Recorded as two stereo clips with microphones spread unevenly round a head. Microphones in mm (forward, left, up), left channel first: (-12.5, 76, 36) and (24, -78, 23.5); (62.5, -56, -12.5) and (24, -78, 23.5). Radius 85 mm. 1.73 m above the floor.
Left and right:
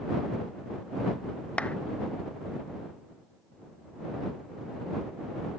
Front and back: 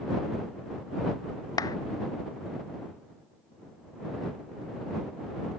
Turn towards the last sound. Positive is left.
turn(degrees=30)